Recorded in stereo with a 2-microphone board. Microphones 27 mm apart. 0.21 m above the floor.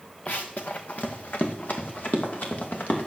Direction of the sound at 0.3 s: 75° left (ahead or behind).